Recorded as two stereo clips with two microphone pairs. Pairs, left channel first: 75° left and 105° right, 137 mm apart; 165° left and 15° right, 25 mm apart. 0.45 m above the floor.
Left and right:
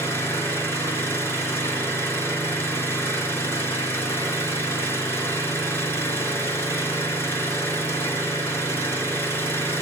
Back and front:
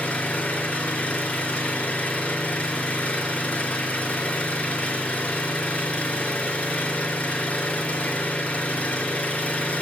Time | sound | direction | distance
0.0 | an engine running | 145° left | 2.5 m